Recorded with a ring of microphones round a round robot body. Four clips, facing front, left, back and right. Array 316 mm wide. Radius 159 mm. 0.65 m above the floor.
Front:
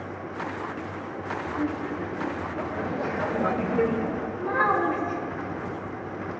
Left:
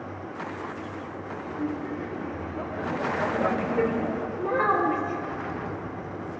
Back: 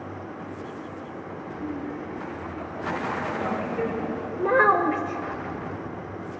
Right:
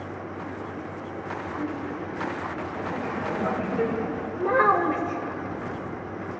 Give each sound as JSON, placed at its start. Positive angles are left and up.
{"t": 1.4, "sound": "laughter", "azimuth_deg": -5, "distance_m": 3.0}
{"t": 4.4, "sound": "a child speaking", "azimuth_deg": -155, "distance_m": 2.0}